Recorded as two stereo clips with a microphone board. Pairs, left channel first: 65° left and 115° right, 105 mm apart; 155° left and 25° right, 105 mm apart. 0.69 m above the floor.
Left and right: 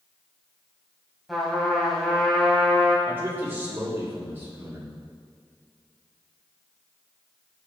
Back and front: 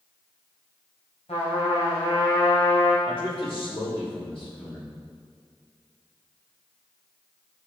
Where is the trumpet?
155° left, 2.5 m.